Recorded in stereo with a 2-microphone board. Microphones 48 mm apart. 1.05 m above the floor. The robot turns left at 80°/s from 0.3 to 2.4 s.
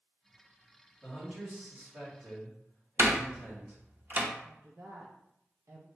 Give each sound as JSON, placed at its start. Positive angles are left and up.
{"t": 1.0, "sound": "a man speaking", "azimuth_deg": 20, "distance_m": 2.5}
{"t": 3.0, "sound": "a door slam", "side_deg": -45, "distance_m": 0.7}
{"t": 4.4, "sound": "a woman speaking", "side_deg": -65, "distance_m": 0.7}